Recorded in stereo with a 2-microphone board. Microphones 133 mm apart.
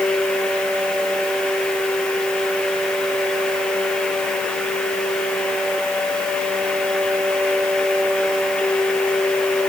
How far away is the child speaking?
No child speaking in this recording.